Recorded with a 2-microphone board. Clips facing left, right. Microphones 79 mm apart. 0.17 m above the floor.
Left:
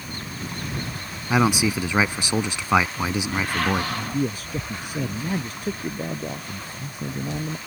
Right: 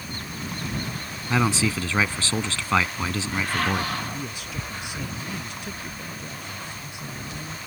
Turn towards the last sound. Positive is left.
turn(degrees=50)  # may be behind; listen again after turning